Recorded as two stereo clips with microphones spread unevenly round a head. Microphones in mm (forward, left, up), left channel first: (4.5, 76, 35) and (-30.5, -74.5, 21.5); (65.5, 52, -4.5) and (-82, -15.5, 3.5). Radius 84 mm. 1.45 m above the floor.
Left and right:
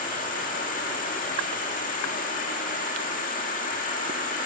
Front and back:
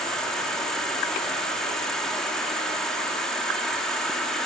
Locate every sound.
0.0 s an insect: 110° left, 2 m